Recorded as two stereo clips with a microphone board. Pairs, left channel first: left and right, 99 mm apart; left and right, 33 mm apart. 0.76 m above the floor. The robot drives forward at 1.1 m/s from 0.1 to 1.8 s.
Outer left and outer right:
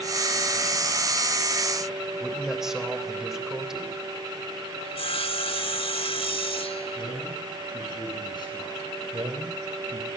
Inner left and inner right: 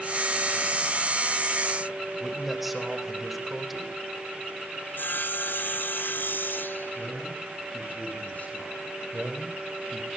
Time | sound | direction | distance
2.2 | a man speaking | 5° right (ahead or behind) | 3.5 m
4.8 | sawing | 70° left (ahead or behind) | 1.4 m
7.0 | a man speaking | 45° left (ahead or behind) | 9 m
9.1 | a man speaking | 65° right (ahead or behind) | 3.5 m